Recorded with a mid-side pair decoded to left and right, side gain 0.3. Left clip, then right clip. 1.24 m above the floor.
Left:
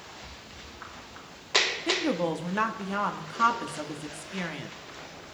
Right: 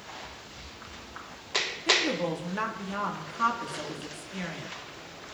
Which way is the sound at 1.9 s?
50° left.